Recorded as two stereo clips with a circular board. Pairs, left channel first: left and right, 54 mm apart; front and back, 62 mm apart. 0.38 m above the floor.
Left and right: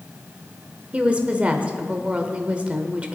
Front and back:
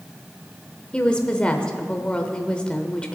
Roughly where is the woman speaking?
Ahead right.